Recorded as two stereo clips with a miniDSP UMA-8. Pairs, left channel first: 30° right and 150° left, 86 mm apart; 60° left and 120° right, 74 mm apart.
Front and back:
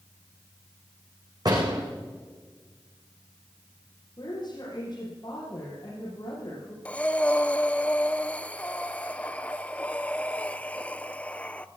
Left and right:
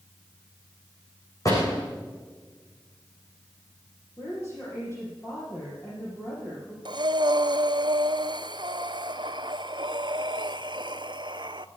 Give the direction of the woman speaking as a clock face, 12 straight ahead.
12 o'clock.